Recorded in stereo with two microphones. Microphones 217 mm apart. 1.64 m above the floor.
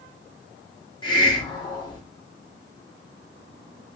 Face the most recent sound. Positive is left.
turn(degrees=20)  # may be behind; listen again after turning